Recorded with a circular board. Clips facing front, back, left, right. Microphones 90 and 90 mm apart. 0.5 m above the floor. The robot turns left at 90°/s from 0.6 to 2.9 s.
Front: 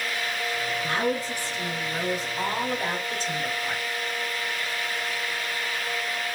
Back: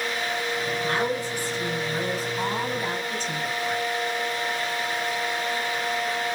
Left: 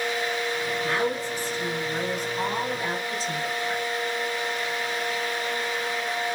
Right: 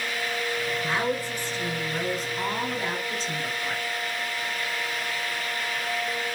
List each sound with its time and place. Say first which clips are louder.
0.8 s a woman speaking: front 1 dB, left 1 dB; 170° right, 2 m; by 3.8 s 5° left, 2 m